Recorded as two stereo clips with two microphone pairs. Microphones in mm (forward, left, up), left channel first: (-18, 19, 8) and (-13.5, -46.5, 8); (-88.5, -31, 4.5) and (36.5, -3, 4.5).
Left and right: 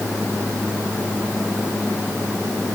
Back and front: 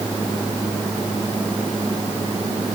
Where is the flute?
No flute in this recording.